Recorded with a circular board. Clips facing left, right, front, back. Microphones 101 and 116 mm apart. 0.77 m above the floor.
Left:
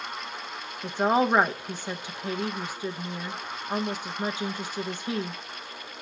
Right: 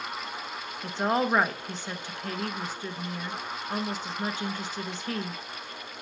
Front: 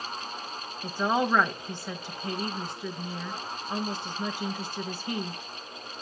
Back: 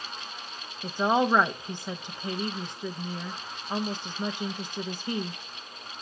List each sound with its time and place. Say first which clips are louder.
0.8 s a woman speaking: left 3 dB, back 2 dB; 140° left, 0.7 m